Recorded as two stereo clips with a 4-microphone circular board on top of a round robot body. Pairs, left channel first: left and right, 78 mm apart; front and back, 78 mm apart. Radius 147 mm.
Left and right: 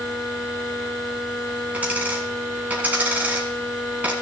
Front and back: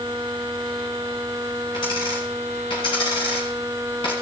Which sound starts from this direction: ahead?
A dropped coin, at 1.7 s.